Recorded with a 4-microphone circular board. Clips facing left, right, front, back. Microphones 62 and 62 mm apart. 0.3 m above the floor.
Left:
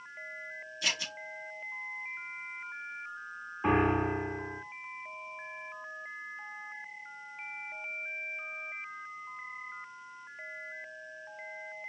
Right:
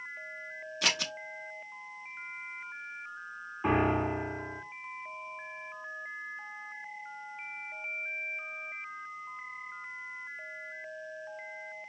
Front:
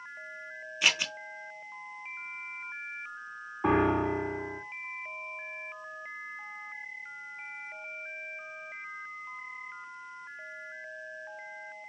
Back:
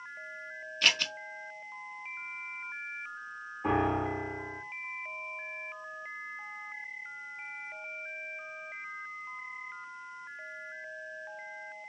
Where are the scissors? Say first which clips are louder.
Right 3 dB, even; 80° right, 0.5 m.